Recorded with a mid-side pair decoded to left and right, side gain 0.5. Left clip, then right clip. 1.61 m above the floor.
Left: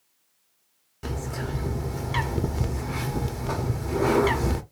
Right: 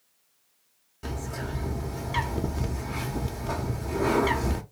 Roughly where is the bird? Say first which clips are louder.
Left 2 dB; ahead left.